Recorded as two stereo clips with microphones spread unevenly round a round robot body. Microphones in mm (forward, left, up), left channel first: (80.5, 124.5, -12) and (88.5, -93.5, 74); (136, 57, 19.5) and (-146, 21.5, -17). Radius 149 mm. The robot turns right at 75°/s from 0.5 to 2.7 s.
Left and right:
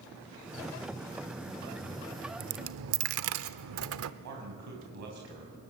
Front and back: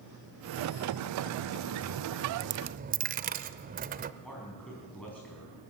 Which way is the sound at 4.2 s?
80° right.